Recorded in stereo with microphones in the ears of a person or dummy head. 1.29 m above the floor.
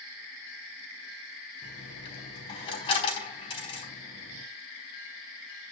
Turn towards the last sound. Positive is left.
turn(degrees=30)  # may be behind; listen again after turning